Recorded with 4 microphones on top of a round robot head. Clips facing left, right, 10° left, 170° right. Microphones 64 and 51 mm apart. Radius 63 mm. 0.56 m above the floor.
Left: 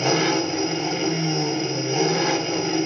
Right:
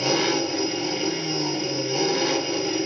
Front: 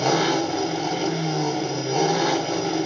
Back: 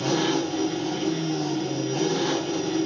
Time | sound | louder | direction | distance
0.0 | an engine running | left 2 dB, front 3 dB | 20° left | 1.0 m